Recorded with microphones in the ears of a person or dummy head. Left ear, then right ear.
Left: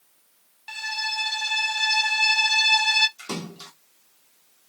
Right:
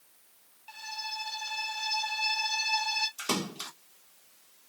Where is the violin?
65° left (ahead or behind), 0.7 m.